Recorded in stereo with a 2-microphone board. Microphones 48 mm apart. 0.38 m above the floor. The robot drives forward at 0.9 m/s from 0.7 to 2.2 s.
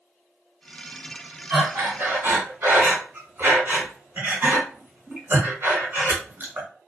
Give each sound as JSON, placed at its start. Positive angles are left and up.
{"t": 1.5, "sound": "breathing", "side_deg": -45, "distance_m": 1.4}